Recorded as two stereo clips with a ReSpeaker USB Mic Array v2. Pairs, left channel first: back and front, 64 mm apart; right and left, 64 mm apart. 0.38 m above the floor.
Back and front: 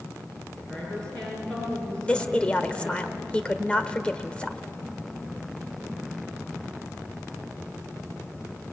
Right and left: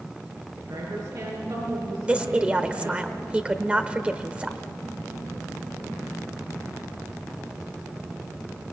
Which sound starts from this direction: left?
A woman speaking, at 0.6 s.